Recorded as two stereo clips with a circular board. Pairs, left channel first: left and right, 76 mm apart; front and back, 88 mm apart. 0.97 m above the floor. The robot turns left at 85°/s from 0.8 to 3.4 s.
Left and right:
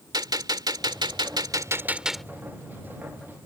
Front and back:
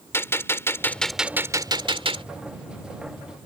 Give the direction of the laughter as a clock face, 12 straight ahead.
I don't hear laughter.